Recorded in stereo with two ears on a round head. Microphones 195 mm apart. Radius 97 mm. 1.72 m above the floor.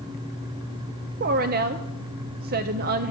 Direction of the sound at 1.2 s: 45° right (ahead or behind).